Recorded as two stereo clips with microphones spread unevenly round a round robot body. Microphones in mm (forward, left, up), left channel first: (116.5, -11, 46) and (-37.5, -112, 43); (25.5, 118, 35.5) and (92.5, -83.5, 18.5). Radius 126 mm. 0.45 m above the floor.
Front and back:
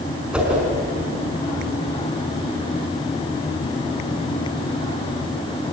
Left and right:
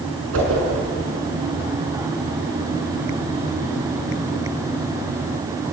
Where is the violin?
No violin in this recording.